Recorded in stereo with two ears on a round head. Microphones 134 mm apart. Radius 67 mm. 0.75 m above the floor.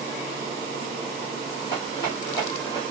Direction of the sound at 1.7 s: 35° left (ahead or behind).